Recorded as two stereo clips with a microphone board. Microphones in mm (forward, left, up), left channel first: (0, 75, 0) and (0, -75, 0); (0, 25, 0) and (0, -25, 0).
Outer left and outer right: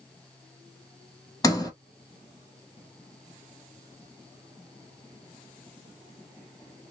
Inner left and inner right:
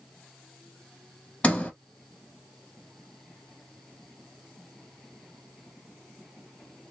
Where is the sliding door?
20° left (ahead or behind), 1.2 m.